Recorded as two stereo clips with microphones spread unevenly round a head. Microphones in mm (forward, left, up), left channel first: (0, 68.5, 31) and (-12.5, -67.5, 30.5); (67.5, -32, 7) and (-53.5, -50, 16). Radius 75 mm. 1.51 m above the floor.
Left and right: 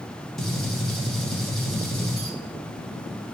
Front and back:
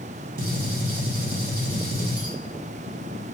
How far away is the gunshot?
About 0.9 m.